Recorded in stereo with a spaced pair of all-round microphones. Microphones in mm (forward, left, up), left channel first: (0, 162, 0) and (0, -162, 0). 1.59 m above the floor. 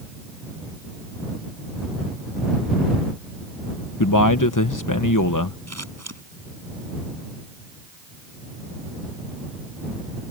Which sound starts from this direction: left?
A man speaking, at 4.0 s.